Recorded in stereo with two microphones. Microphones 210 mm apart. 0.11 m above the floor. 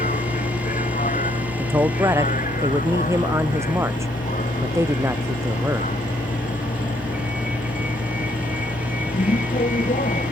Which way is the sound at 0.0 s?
40° left (ahead or behind).